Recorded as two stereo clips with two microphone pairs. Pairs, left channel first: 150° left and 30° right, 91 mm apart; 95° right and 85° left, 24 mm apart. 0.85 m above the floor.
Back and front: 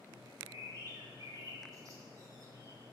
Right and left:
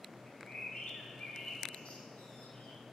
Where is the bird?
75° right, 1.8 m.